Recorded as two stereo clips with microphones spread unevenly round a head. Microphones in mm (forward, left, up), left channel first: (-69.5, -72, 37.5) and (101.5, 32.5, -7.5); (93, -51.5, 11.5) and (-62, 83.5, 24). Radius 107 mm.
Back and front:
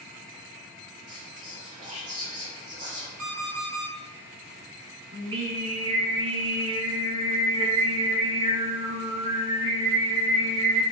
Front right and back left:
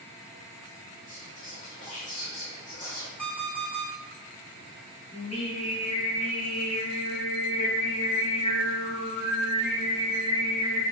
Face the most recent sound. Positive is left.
turn(degrees=-25)